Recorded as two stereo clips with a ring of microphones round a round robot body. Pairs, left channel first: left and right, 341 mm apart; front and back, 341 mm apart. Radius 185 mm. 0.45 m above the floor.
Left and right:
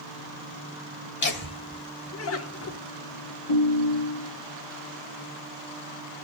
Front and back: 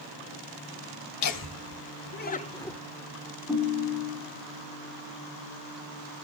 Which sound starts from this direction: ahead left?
Laughter, at 1.2 s.